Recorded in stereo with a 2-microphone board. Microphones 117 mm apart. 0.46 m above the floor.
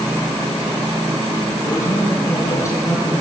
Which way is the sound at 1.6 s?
25° left (ahead or behind).